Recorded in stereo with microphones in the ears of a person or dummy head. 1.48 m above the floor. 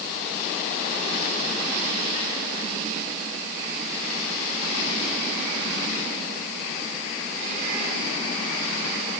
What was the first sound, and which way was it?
Only background noise.